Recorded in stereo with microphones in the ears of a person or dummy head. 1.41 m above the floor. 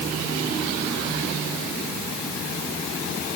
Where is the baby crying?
No baby crying in this recording.